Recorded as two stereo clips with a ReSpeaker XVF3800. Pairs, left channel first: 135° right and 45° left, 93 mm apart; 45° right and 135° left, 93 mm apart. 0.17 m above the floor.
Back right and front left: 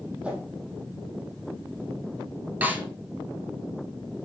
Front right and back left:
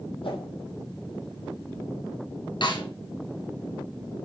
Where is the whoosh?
30° right, 4 m.